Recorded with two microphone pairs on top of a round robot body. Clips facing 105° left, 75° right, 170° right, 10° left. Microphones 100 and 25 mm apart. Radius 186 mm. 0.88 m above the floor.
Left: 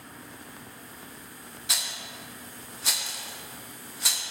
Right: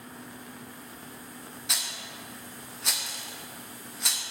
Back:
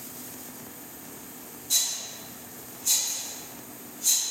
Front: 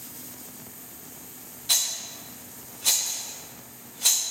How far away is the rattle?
About 0.7 m.